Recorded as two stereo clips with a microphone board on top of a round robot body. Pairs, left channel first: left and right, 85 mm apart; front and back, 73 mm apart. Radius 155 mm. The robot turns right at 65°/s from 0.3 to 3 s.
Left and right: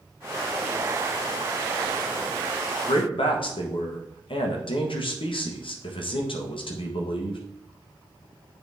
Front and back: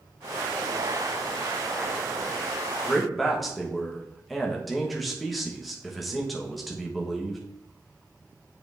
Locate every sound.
2.9 s a man speaking: 80° left, 1.3 m; by 7.4 s 90° left, 1.3 m